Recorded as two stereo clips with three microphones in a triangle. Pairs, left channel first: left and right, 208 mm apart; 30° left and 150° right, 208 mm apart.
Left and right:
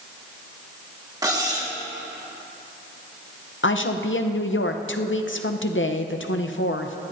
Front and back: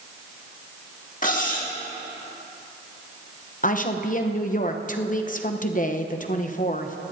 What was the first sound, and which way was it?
Cutlery clinking, 20° right.